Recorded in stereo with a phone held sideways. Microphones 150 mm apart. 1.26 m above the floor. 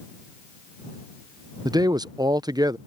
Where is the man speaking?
30° right (ahead or behind).